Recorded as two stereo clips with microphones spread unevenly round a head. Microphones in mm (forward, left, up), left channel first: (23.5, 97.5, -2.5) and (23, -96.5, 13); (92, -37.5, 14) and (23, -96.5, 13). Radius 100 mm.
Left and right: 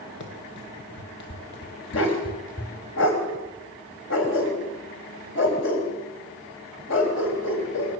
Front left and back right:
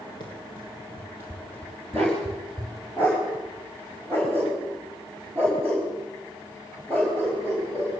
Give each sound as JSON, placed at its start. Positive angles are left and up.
{"t": 0.2, "sound": "running footsteps", "azimuth_deg": 80, "distance_m": 3.0}
{"t": 1.9, "sound": "a dog barking", "azimuth_deg": 120, "distance_m": 4.0}